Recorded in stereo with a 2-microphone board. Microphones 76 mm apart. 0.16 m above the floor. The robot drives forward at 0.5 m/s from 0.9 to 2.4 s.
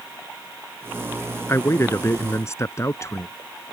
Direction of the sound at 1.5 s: 35° left (ahead or behind).